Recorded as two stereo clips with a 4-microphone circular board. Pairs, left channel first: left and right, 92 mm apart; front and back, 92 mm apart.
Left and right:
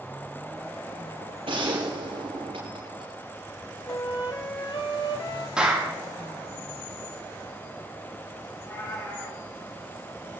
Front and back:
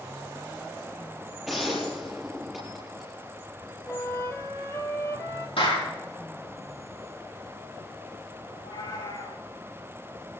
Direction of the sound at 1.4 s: 90° right.